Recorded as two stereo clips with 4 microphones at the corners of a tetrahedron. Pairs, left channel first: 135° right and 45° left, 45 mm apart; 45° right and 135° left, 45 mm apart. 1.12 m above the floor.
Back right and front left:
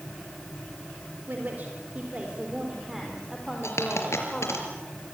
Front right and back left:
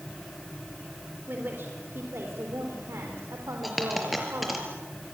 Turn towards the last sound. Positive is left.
turn(degrees=-135)